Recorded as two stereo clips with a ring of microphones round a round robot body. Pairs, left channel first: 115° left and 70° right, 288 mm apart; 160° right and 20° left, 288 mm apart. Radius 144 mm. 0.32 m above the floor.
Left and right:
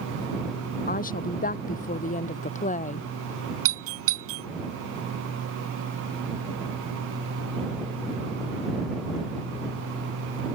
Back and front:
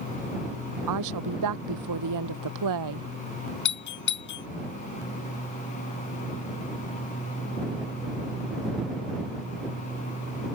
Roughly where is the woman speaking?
Ahead left.